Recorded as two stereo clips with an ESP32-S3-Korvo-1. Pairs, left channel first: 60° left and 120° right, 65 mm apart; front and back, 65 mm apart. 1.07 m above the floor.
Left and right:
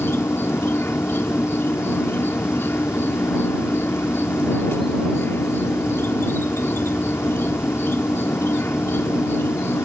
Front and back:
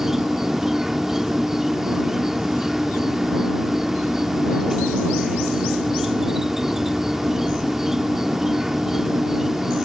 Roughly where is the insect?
Left.